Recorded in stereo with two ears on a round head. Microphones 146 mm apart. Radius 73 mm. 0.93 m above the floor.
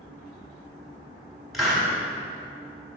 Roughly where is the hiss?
Centre.